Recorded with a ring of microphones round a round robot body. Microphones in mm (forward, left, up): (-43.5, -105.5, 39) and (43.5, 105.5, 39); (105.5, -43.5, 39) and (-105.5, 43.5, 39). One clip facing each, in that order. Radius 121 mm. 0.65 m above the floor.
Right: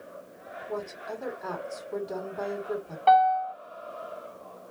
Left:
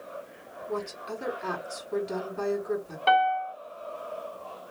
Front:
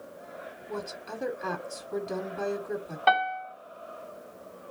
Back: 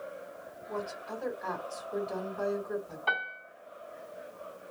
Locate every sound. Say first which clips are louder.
0.7 s a woman speaking: left 2 dB, even; 10° left, 1.9 m
3.1 s a piano: right 3 dB, front 13 dB; straight ahead, 1.6 m